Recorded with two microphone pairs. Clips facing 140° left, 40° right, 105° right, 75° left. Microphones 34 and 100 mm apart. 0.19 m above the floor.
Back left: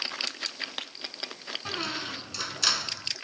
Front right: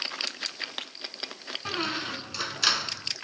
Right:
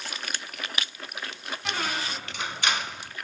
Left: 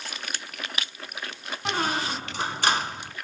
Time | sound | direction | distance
1.6 | a squeak | 30° left | 0.6 m